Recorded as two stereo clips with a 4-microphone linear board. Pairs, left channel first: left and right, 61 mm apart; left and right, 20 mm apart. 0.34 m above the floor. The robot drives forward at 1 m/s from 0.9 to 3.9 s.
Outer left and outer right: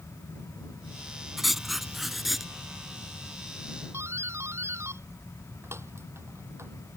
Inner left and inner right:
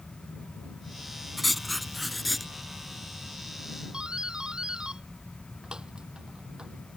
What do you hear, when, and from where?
1.4 s writing: centre (ahead or behind)
3.9 s a doorbell: 45° right (ahead or behind)